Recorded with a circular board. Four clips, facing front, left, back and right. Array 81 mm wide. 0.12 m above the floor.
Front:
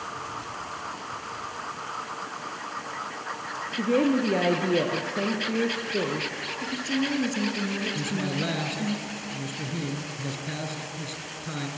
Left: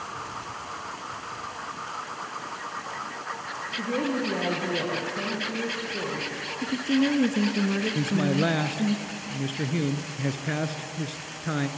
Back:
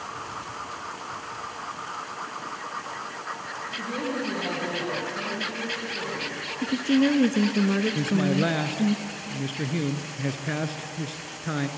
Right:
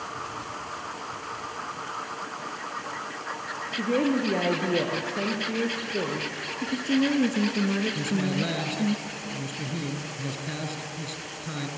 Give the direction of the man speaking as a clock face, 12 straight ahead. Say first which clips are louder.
Left 3 dB, back 6 dB; 8 o'clock.